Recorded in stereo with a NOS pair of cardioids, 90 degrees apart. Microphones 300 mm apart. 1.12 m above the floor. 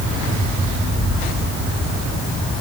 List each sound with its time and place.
Only background noise.